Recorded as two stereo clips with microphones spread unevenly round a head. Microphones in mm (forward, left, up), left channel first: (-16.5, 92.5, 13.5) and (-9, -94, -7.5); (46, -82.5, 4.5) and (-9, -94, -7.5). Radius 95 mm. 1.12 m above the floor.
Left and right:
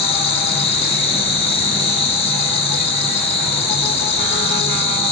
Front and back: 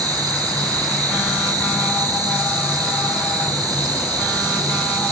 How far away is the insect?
About 5.5 m.